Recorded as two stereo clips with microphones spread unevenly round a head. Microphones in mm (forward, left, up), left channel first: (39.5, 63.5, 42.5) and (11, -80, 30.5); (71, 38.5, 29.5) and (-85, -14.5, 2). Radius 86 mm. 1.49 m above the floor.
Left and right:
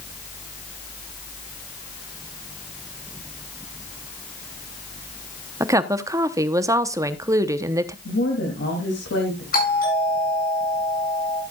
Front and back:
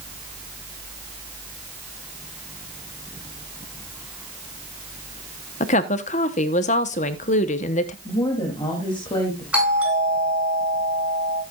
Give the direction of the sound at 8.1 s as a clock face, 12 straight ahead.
9 o'clock.